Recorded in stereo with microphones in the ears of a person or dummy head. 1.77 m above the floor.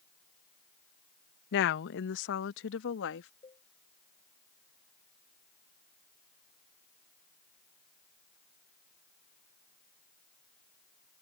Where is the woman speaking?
65° left (ahead or behind); by 3.3 s 75° left (ahead or behind).